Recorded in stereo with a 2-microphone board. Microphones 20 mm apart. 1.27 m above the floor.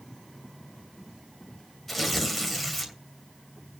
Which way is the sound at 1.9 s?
5° left (ahead or behind).